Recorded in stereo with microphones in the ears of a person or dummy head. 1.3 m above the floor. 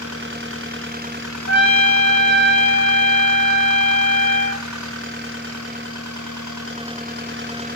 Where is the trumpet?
75° left (ahead or behind), 1.5 m.